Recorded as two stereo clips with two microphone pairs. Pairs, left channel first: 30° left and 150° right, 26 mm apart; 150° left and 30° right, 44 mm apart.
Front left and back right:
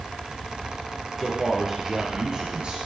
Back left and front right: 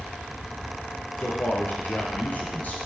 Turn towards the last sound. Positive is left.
turn(degrees=-175)